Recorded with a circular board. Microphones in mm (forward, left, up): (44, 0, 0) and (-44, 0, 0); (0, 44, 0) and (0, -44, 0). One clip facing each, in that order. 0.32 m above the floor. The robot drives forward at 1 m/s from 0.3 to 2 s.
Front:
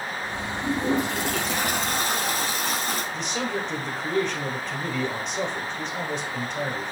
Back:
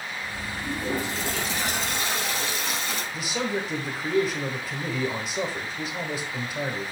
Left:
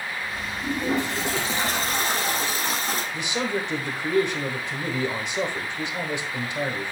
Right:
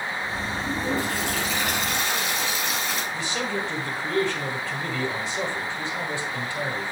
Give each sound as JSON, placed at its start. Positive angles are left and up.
{"t": 0.6, "sound": "a toilet flushing", "azimuth_deg": 20, "distance_m": 2.5}
{"t": 3.1, "sound": "a man speaking", "azimuth_deg": 110, "distance_m": 1.2}